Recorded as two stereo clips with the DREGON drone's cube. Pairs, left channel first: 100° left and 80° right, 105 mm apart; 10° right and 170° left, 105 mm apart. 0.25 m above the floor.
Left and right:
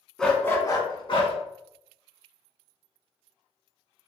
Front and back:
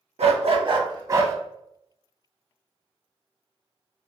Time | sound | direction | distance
0.2 | a dog barking | 175° right | 0.5 m